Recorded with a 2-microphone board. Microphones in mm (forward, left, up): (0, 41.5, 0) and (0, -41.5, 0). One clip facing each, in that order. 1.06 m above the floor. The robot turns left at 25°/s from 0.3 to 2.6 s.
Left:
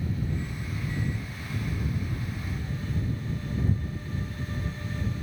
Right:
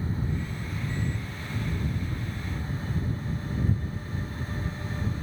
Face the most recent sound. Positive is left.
No sound to turn to.